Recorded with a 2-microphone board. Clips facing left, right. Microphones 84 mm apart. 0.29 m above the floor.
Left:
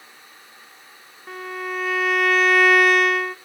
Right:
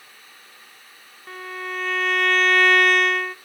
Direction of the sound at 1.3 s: 5° left (ahead or behind).